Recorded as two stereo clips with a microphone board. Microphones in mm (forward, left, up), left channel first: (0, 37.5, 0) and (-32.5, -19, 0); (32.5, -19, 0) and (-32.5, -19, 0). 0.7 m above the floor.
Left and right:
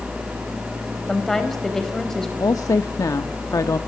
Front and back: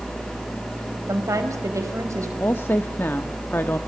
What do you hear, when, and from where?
1.1 s a woman speaking: 145° left, 4 m
2.4 s a woman speaking: 50° left, 0.8 m